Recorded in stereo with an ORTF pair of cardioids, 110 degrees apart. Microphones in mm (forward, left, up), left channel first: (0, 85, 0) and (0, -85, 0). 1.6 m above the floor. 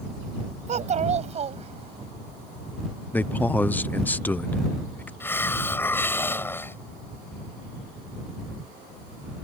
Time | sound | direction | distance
0.7 | a child speaking | 45° right | ?
3.1 | a man speaking | 10° left | ?
5.2 | a hiss | 15° left | ?